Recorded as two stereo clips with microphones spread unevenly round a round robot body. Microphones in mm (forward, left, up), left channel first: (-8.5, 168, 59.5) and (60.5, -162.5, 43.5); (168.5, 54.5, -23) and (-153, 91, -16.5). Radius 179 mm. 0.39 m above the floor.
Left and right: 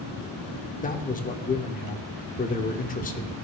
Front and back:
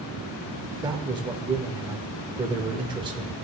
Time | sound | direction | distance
0.8 | a man speaking | 120° left | 0.9 m